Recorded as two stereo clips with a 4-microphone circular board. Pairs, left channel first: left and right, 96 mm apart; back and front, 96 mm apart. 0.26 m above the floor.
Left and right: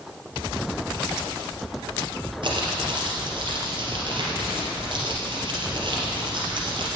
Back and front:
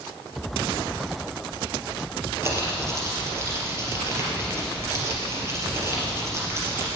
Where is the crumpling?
60° right, 3.5 m.